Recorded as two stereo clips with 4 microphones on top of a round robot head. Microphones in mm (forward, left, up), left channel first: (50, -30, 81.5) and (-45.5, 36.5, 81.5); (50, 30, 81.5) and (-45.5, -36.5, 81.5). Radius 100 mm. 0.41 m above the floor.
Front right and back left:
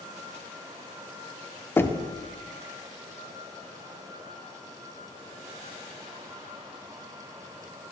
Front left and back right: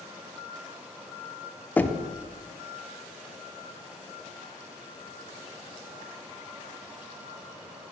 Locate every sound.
1.8 s knocking: 15° right, 0.6 m